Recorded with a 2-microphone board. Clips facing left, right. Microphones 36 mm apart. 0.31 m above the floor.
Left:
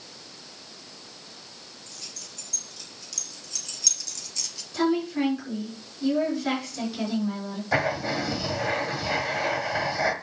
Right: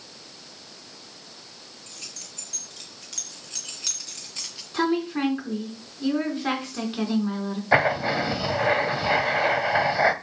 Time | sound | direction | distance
1.9 | keys jangling | 55° right (ahead or behind) | 3.5 m
4.7 | a woman speaking | 45° right (ahead or behind) | 4 m
7.7 | writing | 30° right (ahead or behind) | 0.9 m